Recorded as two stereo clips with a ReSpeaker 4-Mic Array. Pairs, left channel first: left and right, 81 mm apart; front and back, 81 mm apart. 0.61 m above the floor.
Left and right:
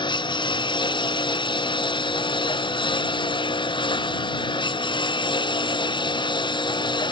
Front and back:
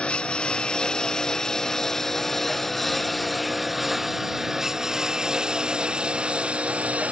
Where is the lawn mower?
80° left; by 7.1 s 110° left.